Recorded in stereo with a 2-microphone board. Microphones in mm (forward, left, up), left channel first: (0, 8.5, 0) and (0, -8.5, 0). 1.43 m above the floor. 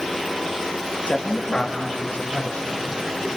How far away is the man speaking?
About 2.5 m.